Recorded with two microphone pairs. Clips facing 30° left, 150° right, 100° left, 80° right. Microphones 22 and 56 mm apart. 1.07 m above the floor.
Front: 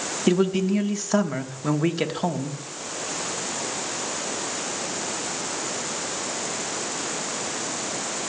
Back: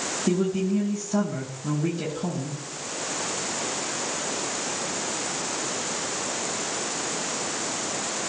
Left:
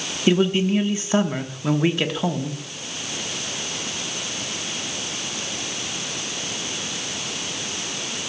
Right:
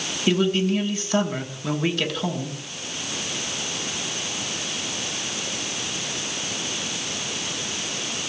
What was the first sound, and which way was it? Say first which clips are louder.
A man speaking: front 4 dB, left 2 dB; 35° left.